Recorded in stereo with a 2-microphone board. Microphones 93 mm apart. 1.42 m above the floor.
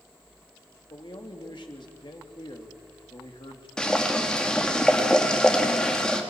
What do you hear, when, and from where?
0.9 s a man speaking: 60° left (ahead or behind), 3 m
3.8 s boiling: 10° left (ahead or behind), 2.5 m